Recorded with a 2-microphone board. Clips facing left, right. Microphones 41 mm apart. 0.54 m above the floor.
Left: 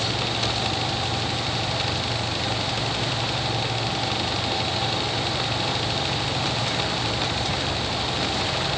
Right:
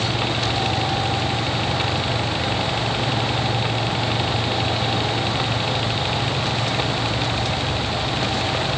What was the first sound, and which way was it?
Only background noise.